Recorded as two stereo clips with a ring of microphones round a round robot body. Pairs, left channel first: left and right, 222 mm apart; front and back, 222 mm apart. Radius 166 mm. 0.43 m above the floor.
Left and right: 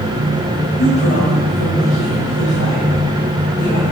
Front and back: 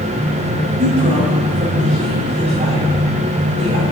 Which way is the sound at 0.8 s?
120° left.